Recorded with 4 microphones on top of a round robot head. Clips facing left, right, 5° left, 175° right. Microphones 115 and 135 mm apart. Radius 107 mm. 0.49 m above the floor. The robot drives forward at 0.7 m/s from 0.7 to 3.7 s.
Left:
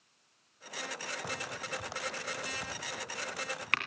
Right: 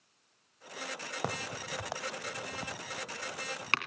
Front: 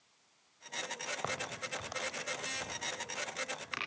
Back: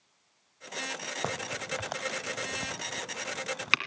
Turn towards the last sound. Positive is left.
turn(degrees=-155)